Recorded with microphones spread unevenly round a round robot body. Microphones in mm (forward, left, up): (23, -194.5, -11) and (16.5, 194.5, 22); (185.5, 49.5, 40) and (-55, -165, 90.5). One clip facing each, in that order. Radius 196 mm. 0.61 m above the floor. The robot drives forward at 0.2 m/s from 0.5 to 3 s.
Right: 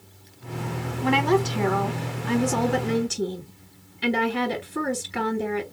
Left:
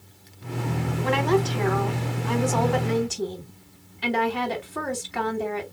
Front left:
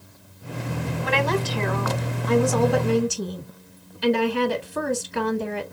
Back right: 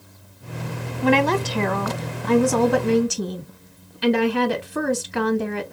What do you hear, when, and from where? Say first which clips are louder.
1.0 s a woman speaking: right 1 dB, back right 7 dB; 120° right, 1.5 m; by 5.6 s 135° right, 1.7 m